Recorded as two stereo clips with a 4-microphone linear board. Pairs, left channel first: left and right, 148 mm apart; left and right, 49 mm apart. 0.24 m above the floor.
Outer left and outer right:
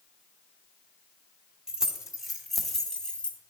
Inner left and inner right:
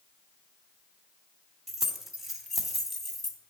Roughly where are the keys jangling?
Centre.